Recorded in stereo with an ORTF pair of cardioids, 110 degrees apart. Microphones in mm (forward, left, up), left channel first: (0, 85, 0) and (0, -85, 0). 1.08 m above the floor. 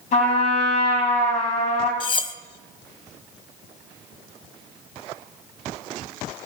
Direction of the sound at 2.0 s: 30° left.